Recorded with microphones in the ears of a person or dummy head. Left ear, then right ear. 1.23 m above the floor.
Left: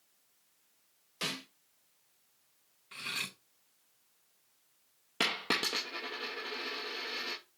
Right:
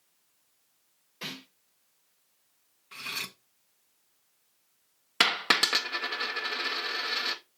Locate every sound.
1.2 s a snare drum: 55° left (ahead or behind), 3.5 m
2.9 s cutlery clinking: centre (ahead or behind), 0.7 m
5.2 s a dropped coin: 20° right (ahead or behind), 0.6 m